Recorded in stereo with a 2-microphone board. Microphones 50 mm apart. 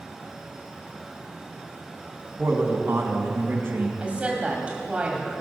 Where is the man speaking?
55° right (ahead or behind), 2.5 m.